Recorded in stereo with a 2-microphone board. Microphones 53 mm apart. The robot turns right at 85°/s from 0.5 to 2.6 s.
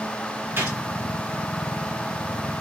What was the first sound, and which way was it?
A gunshot, 45° right (ahead or behind).